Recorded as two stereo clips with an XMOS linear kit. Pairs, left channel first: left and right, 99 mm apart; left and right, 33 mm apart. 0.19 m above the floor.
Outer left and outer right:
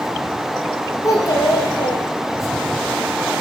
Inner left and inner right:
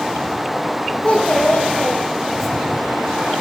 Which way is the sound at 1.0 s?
35° left (ahead or behind).